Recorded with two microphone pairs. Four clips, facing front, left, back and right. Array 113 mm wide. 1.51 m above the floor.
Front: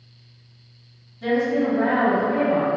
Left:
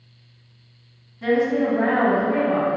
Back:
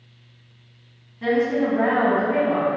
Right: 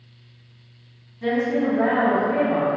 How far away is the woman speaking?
About 1.6 m.